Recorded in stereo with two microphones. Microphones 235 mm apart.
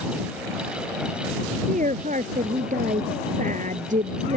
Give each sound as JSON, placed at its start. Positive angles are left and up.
{"t": 1.7, "sound": "a woman speaking", "side_deg": -35}